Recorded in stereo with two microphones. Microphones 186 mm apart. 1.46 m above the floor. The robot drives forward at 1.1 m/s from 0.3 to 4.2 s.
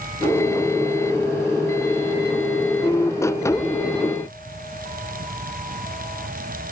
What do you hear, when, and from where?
Only background noise.